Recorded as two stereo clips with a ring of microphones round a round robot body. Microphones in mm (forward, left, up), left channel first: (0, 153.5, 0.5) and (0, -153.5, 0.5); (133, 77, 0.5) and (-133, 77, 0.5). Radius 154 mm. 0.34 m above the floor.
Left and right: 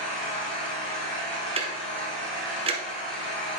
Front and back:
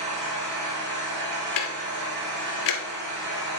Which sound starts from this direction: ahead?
Ticking, at 1.6 s.